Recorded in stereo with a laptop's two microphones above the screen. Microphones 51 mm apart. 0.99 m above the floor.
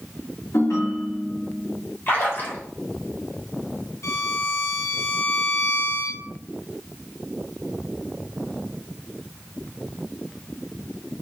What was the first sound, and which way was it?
A ringtone, 80° left.